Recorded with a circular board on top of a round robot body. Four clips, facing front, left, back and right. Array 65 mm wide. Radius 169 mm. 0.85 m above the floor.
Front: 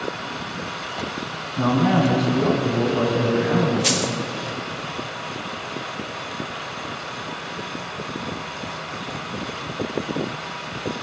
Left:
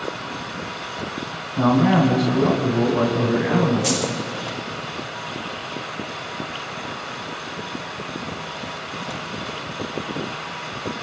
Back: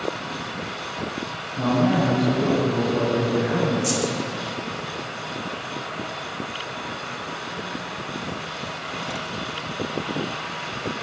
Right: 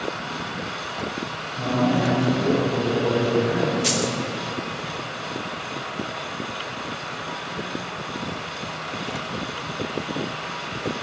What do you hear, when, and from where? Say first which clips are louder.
1.6 s a man speaking: left 5 dB, front 2 dB; 75° left, 7.5 m
3.8 s a dropped coin: left 1 dB, front 1 dB; 10° right, 1.1 m